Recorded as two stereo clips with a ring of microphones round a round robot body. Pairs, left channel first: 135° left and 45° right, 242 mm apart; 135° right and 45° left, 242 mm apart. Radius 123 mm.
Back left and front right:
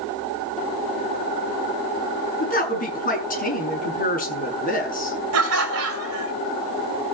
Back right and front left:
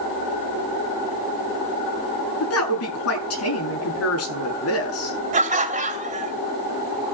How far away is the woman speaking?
About 7 m.